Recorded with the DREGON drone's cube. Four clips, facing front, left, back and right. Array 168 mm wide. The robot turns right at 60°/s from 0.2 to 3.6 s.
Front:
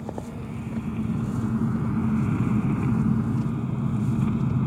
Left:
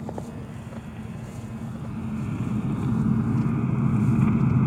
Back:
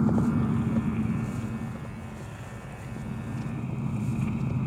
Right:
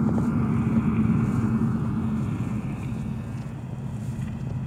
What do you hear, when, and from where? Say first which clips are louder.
0.0 s an engine running: right 11 dB, back 10 dB; 135° right; by 4.7 s 70° left